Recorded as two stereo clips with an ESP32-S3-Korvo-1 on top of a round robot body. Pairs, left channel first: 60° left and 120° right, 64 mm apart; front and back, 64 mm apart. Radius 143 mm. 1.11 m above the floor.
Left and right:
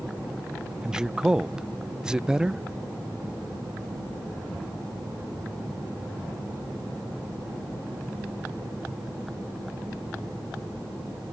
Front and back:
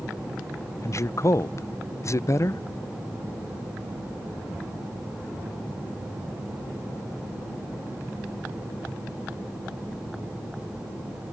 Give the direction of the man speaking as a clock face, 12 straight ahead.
1 o'clock.